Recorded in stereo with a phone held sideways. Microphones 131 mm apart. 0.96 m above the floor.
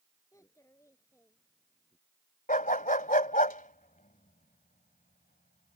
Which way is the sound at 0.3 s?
20° left (ahead or behind).